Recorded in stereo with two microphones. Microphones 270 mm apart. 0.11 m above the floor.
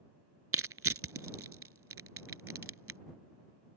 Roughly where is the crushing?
Right.